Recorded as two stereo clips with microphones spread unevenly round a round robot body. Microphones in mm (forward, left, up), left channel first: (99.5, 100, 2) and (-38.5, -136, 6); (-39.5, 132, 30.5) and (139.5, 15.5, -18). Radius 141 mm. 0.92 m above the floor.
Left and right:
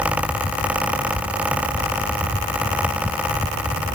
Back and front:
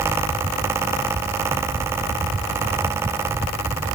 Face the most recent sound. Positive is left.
No sound to turn to.